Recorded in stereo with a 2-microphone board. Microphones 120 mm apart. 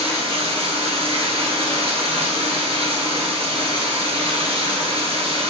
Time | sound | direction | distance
0.0 | running water | 55° right (ahead or behind) | 1.2 m